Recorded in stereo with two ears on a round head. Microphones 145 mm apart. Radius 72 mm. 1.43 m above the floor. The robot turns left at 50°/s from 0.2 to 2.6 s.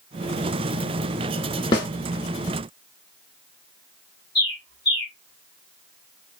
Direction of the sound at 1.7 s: 35° left (ahead or behind).